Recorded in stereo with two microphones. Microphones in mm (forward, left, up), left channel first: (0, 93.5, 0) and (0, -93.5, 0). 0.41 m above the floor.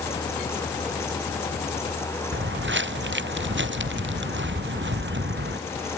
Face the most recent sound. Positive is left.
turn(degrees=-80)